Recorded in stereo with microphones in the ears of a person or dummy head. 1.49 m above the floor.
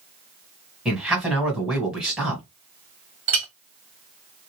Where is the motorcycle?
I don't hear a motorcycle.